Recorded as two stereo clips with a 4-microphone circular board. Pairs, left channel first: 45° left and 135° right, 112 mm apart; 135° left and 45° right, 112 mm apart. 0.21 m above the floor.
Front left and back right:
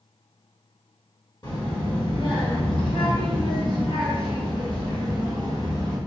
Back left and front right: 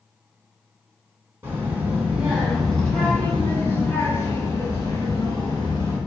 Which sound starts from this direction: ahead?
A child speaking, at 1.4 s.